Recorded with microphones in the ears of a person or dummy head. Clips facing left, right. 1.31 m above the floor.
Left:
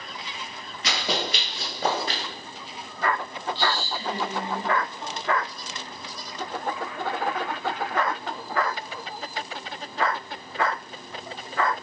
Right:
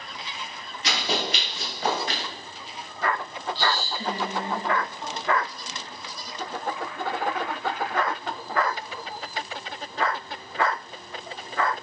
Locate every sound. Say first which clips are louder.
0.8 s running footsteps: even; 35° left (ahead or behind), 1.5 m; by 2.2 s 30° left (ahead or behind), 1.8 m
3.5 s a woman speaking: right 1 dB; 35° right (ahead or behind), 0.8 m